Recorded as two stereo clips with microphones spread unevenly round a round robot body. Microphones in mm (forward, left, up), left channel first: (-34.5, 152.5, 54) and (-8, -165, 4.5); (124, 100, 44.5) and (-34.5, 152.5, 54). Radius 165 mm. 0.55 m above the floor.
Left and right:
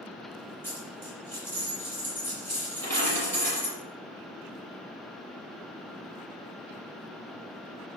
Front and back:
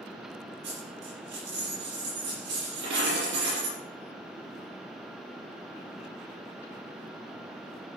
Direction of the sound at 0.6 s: Straight behind.